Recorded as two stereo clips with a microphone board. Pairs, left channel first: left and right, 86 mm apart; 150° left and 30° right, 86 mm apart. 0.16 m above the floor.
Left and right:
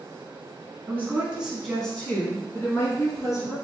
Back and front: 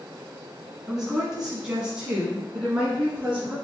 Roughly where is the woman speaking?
Right.